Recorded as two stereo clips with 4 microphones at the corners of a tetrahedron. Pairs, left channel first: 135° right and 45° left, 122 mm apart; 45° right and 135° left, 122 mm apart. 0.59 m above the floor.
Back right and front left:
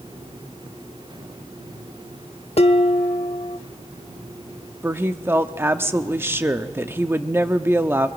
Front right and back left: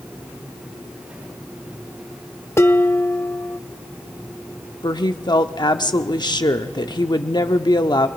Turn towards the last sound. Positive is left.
turn(degrees=-20)